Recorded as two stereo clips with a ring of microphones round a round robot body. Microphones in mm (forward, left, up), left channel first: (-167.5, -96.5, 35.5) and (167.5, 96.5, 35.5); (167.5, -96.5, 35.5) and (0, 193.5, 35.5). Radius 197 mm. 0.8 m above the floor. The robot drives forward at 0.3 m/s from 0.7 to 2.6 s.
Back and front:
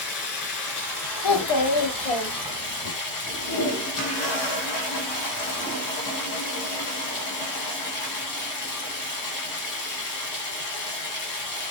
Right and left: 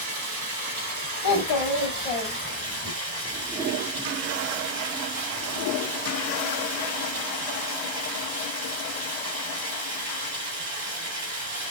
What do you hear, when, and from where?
0.0 s running water: 165° left, 1.3 m; by 11.7 s 170° left, 1.8 m
1.2 s a child speaking: 105° right, 1.0 m; by 2.9 s 125° right, 1.2 m